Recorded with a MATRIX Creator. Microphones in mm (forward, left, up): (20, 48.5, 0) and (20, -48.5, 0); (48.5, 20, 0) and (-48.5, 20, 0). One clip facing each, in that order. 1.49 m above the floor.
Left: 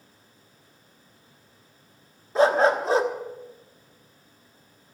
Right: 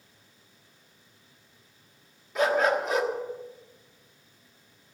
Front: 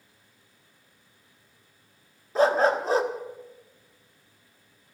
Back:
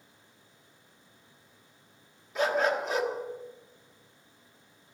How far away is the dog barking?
About 1.3 m.